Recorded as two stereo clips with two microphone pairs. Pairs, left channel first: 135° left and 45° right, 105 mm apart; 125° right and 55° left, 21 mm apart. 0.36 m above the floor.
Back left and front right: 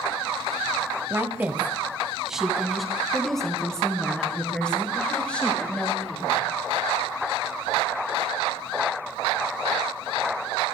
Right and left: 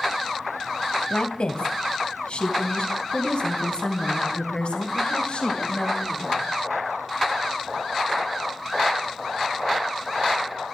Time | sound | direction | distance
1.1 | a woman speaking | 105° right | 1.7 m